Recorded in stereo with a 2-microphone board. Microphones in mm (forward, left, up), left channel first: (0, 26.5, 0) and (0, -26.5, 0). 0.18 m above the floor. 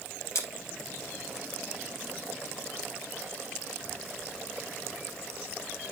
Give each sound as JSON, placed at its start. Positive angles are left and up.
{"t": 0.3, "sound": "scissors", "side_deg": 60, "distance_m": 4.0}